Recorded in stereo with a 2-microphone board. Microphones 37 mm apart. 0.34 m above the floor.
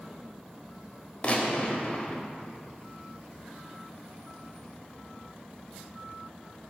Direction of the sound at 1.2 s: 40° left (ahead or behind).